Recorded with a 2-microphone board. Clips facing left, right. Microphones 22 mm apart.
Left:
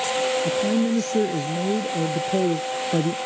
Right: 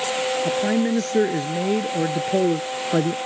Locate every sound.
0.5 s a man speaking: 55° right (ahead or behind); by 3.2 s 45° right (ahead or behind)